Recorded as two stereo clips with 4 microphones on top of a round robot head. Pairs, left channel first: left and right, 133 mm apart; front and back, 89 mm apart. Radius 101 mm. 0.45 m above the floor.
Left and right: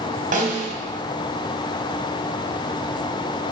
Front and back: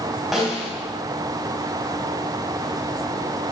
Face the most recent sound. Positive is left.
turn(degrees=-90)